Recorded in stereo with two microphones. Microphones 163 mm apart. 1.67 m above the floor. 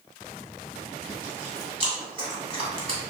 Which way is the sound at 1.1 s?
35° right (ahead or behind).